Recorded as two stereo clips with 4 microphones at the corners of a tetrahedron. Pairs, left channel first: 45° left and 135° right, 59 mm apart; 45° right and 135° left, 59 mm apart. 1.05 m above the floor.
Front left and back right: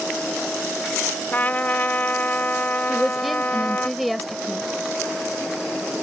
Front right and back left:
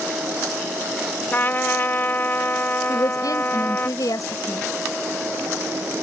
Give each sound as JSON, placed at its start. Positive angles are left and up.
{"t": 1.3, "sound": "a trumpet", "azimuth_deg": -5}
{"t": 2.9, "sound": "a woman speaking", "azimuth_deg": -45}